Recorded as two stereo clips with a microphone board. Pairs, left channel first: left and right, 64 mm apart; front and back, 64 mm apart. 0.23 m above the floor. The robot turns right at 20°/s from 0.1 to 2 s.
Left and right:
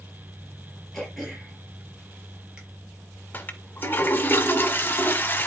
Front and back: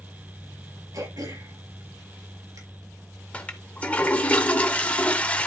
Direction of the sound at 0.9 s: 170° left.